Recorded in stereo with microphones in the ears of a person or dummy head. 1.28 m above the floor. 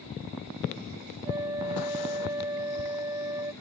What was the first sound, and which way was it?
A flute, 25° right (ahead or behind).